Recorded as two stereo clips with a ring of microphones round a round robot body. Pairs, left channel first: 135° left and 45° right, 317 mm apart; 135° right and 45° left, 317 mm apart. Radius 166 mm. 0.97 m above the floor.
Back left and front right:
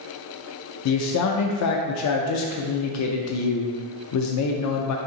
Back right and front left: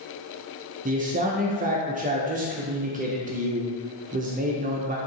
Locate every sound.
0.8 s a man speaking: 110° left, 0.6 m